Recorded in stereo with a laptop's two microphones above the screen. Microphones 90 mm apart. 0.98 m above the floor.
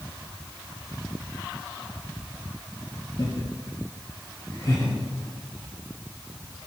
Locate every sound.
3.2 s laughter: 45° left (ahead or behind), 2.5 m